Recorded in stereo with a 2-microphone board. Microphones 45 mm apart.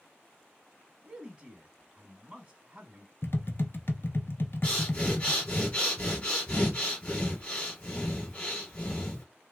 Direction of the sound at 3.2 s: 55° left (ahead or behind).